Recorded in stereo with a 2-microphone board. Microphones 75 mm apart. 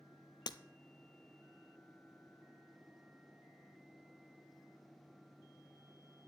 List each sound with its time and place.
0.5 s breaking glass: 70° left (ahead or behind), 0.5 m